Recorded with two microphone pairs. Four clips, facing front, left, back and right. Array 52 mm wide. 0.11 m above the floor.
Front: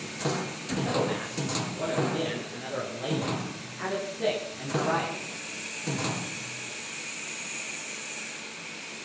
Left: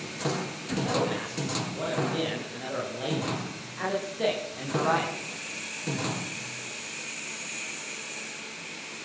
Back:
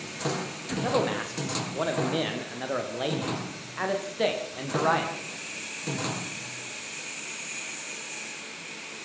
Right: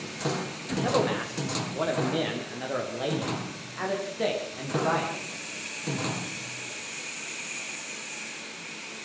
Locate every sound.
0.8 s a man speaking: 145° right, 9.5 m; by 5.2 s straight behind, 10 m